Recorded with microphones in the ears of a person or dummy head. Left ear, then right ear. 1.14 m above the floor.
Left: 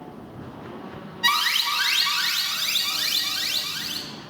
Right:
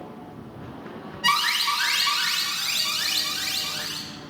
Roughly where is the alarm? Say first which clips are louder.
Even; left.